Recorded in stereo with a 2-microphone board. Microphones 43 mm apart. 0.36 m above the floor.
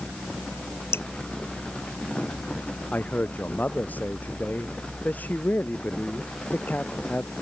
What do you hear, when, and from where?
0.9 s dripping: 65° left (ahead or behind)
2.9 s a man speaking: 40° left (ahead or behind)